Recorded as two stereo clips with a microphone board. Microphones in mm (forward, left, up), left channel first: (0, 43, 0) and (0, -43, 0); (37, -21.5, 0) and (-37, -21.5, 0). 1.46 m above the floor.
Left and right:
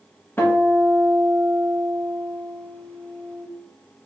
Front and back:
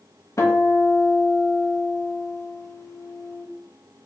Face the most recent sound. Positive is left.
turn(degrees=30)